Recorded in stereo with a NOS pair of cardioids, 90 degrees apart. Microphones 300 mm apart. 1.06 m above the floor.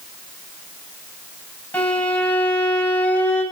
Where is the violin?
5° left, 8 m.